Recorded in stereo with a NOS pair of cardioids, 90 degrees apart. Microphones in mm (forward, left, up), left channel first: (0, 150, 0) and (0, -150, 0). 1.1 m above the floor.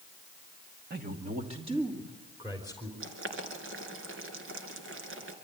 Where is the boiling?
45° right, 3 m.